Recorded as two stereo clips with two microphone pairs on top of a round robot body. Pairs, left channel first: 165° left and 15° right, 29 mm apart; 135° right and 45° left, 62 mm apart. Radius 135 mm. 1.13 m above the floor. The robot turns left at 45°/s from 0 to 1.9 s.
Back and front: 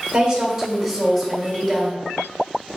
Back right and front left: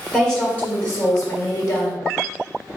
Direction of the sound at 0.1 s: 55° right.